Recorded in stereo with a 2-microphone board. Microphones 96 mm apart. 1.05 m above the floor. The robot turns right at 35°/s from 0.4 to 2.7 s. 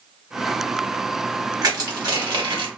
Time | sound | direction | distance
1.6 | crushing | 130° right | 1.2 m